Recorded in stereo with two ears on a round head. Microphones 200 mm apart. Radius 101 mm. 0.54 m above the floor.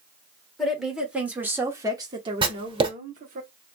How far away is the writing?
About 1.0 m.